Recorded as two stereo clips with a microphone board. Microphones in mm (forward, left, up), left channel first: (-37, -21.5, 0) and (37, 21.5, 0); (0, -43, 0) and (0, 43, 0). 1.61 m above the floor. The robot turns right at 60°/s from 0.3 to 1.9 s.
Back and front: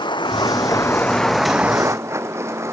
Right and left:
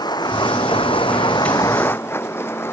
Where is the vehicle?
125° right; by 2.7 s 30° right.